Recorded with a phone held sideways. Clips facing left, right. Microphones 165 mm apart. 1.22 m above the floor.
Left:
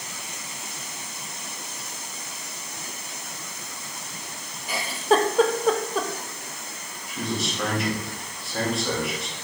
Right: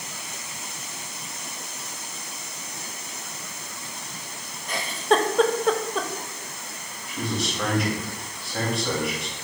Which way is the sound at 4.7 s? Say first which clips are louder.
Left 1 dB; 5° left (ahead or behind).